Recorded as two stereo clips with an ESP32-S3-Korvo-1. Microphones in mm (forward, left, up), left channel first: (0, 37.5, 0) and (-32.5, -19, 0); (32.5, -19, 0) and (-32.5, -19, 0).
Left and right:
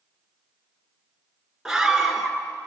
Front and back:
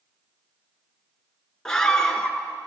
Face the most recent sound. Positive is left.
turn(degrees=-60)